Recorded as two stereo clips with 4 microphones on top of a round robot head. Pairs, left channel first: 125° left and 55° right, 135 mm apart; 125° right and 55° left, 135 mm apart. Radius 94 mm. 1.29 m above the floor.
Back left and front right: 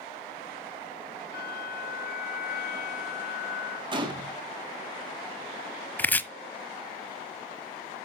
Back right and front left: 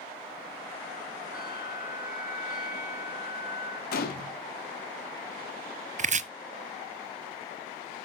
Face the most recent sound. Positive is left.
turn(degrees=50)